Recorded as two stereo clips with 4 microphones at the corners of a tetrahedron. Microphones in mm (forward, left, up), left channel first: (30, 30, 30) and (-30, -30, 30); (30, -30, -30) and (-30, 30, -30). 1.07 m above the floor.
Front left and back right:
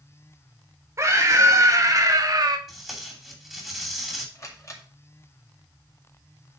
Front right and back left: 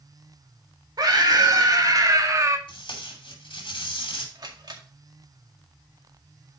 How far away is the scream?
About 1.7 m.